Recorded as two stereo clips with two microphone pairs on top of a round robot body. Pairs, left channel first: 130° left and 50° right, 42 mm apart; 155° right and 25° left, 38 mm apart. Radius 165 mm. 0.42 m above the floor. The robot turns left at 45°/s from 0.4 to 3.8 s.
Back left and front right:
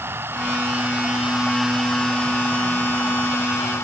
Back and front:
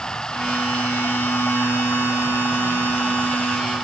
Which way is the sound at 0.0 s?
85° right.